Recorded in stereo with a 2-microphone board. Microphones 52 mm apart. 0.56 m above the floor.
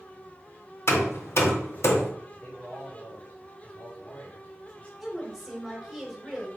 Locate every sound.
0.9 s hammering: 55° left (ahead or behind), 1.0 m
2.3 s a man speaking: 30° left (ahead or behind), 1.5 m
5.0 s a woman speaking: 5° left (ahead or behind), 1.4 m